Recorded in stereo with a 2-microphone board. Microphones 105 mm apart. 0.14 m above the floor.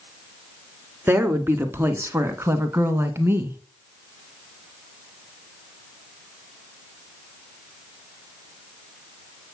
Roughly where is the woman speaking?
Right.